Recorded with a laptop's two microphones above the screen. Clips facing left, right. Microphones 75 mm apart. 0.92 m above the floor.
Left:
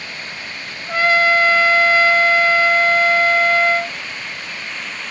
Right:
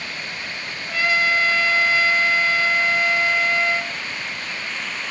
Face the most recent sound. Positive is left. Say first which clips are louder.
# left 6 dB
turn(degrees=35)  # may be behind; listen again after turning